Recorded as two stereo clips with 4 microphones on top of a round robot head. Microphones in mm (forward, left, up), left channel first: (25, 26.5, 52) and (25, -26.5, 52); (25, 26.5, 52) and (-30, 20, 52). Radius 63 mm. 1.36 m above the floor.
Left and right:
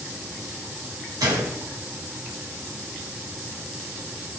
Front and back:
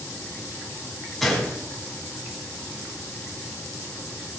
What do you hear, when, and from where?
1.2 s a gunshot: 80° right, 2.5 m